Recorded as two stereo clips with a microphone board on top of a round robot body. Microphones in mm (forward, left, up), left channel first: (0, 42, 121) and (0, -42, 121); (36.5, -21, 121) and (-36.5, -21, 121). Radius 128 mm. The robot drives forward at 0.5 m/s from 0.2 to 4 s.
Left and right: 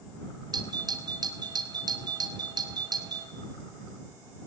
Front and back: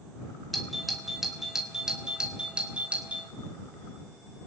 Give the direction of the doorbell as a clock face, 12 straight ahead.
3 o'clock.